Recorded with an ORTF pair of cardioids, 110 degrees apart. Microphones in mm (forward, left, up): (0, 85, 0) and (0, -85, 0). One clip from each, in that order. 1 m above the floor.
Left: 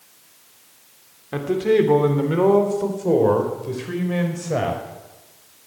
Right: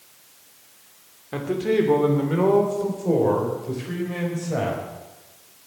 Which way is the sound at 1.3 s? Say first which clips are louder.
Left 4 dB; 15° left.